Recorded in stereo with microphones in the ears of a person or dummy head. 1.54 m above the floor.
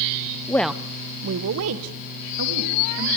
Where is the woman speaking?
15° left (ahead or behind), 0.9 m; by 3.1 s 85° right, 3 m.